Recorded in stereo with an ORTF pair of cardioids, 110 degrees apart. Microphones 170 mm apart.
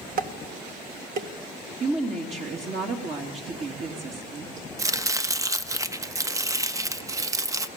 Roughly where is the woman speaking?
Ahead right.